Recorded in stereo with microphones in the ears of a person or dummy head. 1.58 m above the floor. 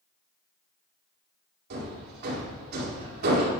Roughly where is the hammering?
Right.